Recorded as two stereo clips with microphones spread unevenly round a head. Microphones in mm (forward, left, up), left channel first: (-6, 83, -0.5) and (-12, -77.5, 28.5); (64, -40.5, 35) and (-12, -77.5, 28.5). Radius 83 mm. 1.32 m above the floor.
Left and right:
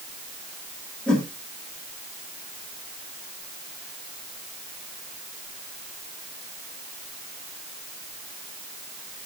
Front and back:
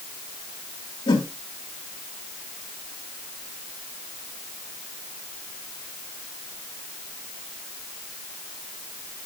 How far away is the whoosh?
About 1.5 m.